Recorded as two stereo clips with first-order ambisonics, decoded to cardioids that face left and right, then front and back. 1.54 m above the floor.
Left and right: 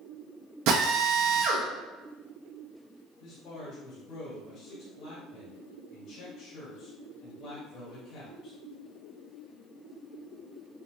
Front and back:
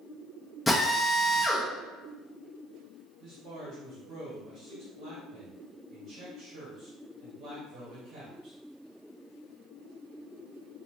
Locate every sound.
0.7 s a drill: 80° right, 0.8 m
3.2 s a man speaking: 130° left, 1.3 m